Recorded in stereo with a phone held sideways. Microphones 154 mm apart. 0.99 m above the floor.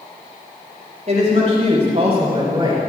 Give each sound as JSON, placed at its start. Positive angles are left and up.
{"t": 1.1, "sound": "a woman speaking", "side_deg": -50, "distance_m": 4.5}